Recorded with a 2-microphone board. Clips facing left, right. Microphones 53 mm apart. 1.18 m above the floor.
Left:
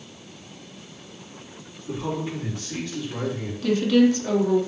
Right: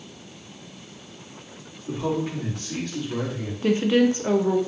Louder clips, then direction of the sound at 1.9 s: Right 2 dB; 50° right (ahead or behind).